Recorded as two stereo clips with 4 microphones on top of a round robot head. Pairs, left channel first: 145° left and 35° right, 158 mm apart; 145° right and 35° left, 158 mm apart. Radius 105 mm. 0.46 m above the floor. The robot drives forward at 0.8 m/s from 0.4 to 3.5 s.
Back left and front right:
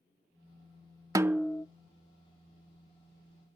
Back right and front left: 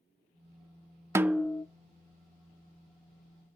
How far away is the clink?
No clink in this recording.